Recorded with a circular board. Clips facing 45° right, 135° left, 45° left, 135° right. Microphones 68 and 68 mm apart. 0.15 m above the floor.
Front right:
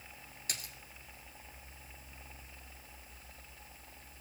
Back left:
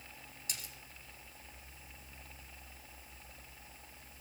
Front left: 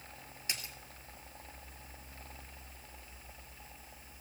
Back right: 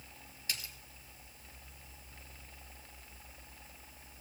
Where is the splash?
20° right, 1.2 m.